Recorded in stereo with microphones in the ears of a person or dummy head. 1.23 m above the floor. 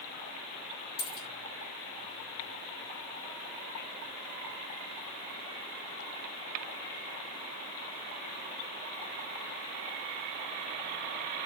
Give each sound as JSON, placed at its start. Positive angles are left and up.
{"t": 1.0, "sound": "a dropped coin", "side_deg": 35, "distance_m": 2.5}